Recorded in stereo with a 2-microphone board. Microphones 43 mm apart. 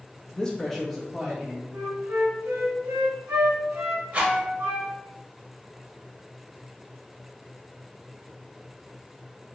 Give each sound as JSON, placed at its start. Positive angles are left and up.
{"t": 0.3, "sound": "a man speaking", "side_deg": 20, "distance_m": 0.5}
{"t": 1.7, "sound": "a flute", "side_deg": -70, "distance_m": 1.0}
{"t": 4.1, "sound": "a rattle", "side_deg": -35, "distance_m": 1.2}